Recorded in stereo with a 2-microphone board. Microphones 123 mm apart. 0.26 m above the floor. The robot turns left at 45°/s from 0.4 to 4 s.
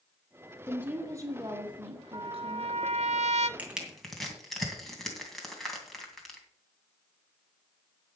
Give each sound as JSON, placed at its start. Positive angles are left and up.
{"t": 0.7, "sound": "a woman speaking", "azimuth_deg": -10, "distance_m": 2.5}
{"t": 2.1, "sound": "a trumpet", "azimuth_deg": -40, "distance_m": 0.7}
{"t": 3.6, "sound": "crushing", "side_deg": -15, "distance_m": 2.5}